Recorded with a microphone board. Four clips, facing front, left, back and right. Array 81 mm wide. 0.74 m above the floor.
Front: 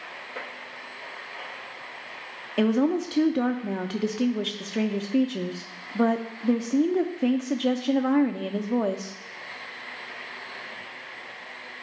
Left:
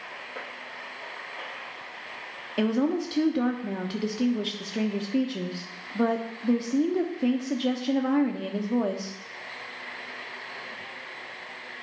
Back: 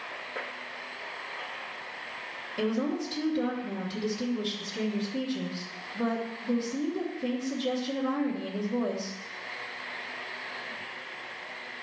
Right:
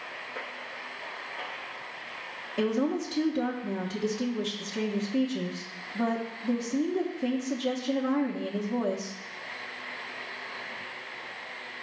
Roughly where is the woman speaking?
Ahead.